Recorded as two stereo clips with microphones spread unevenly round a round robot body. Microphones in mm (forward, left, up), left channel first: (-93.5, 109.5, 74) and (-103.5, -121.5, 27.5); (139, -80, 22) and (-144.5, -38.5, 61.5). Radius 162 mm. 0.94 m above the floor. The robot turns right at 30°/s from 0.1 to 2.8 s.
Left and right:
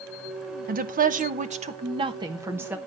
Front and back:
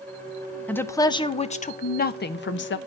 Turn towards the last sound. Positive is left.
turn(degrees=-20)